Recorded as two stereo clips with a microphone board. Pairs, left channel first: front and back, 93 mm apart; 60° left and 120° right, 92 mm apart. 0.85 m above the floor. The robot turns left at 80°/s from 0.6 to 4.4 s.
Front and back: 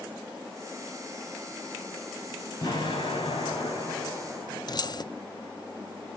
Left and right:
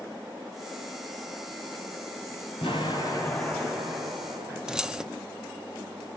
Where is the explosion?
50° left, 6 m; by 4.6 s 95° right, 6 m.